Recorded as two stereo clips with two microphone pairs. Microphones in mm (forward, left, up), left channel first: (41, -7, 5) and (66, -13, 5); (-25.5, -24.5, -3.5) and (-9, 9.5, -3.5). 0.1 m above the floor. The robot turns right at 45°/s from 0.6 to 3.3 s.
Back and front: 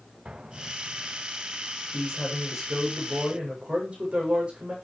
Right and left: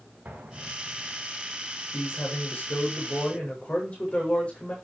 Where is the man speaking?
125° right, 8.5 m; by 4.8 s 65° right, 8.5 m.